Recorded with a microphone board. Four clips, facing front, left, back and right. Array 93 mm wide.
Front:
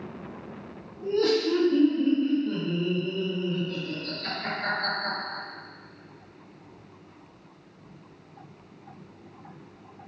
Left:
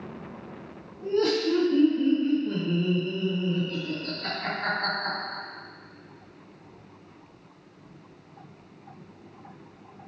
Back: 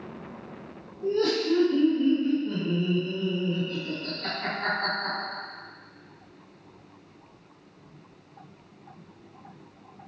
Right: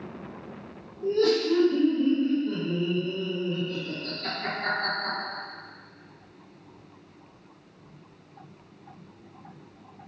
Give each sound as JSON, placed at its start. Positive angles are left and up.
{"t": 1.0, "sound": "laughter", "azimuth_deg": 75, "distance_m": 1.6}